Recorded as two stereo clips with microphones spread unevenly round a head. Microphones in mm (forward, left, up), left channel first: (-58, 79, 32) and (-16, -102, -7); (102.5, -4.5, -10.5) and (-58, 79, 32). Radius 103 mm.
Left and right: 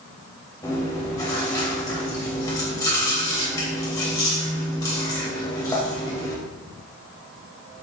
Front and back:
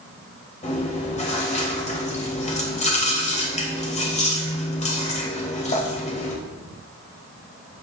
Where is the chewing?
30° left, 2.5 m.